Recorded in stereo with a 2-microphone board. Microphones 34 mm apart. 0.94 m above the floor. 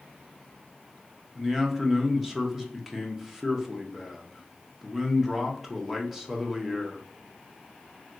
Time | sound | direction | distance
1.4 | a man speaking | 10° right (ahead or behind) | 0.7 m